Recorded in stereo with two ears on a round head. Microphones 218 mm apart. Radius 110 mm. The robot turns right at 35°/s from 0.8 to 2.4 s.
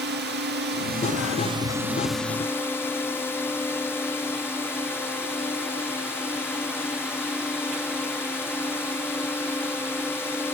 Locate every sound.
0.0 s a drone: 45° right; by 10.6 s 10° left